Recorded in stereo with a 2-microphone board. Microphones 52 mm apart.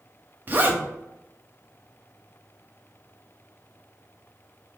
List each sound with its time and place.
0.5 s a zipper: 35° right (ahead or behind), 0.7 m